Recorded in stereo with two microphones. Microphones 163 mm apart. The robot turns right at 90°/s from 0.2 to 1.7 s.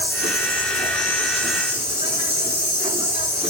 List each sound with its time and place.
0.0 s an insect: 80° left, 9.5 m; by 3.5 s 145° right, 9.5 m